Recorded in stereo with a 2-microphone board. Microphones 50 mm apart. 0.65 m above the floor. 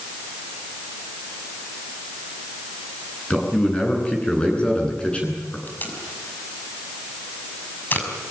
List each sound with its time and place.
3.3 s a man speaking: 25° left (ahead or behind), 9.5 m
5.7 s tape being pulled: 45° left (ahead or behind), 5.5 m